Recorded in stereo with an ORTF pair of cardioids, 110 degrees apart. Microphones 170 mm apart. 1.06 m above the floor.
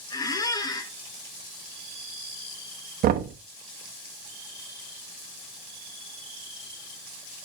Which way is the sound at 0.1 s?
25° left.